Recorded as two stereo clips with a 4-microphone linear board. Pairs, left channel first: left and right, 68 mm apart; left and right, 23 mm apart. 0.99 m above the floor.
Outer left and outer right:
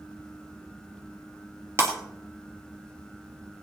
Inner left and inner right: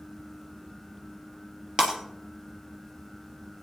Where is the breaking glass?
40° right (ahead or behind), 2.5 m.